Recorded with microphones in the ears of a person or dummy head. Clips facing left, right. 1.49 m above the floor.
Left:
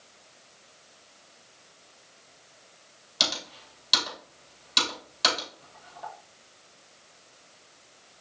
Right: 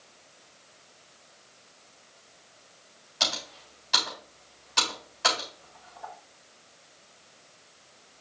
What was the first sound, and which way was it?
Typing on a keyboard, 50° left (ahead or behind).